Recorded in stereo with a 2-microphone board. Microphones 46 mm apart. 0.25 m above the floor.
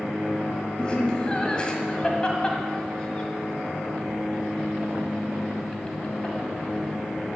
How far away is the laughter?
About 1.8 m.